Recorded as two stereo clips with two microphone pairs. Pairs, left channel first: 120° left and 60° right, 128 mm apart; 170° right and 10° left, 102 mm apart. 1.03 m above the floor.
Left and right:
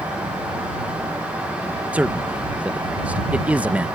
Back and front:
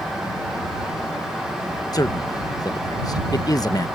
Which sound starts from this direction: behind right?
A man speaking, at 1.9 s.